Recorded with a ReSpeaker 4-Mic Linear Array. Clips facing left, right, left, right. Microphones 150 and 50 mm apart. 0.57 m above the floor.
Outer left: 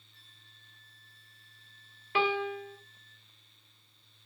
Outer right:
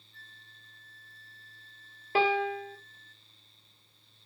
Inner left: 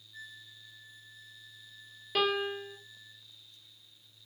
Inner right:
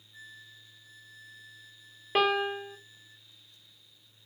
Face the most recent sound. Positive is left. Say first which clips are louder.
# outer right 3 dB, inner right 4 dB
turn(degrees=-35)  # may be behind; listen again after turning